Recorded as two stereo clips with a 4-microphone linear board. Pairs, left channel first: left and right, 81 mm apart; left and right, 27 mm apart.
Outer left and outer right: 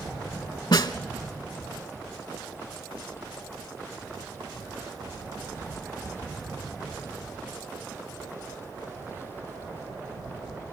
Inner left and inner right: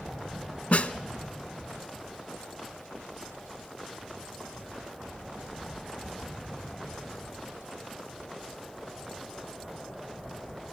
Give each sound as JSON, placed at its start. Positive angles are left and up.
{"t": 0.7, "sound": "a snare drum", "side_deg": 65, "distance_m": 0.6}